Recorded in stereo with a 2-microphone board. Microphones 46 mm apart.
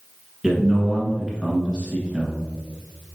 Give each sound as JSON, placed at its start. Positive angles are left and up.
{"t": 0.4, "sound": "a man speaking", "side_deg": -20, "distance_m": 1.3}